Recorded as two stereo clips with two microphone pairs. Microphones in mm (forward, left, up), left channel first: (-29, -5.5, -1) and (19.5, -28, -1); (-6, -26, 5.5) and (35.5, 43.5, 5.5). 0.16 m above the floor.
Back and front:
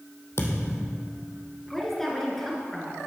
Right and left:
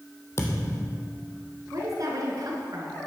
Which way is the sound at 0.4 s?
175° right.